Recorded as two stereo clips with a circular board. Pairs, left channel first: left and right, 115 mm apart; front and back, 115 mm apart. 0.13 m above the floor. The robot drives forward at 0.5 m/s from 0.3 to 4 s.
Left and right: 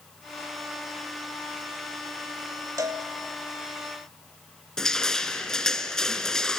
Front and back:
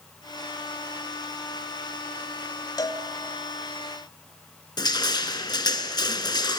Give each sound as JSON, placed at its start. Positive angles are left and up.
{"t": 2.8, "sound": "a cowbell", "azimuth_deg": -40, "distance_m": 0.9}
{"t": 4.8, "sound": "crushing", "azimuth_deg": 10, "distance_m": 0.9}